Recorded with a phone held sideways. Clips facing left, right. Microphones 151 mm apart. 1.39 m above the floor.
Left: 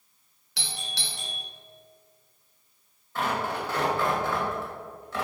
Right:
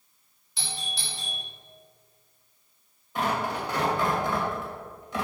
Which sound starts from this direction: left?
A doorbell, at 0.6 s.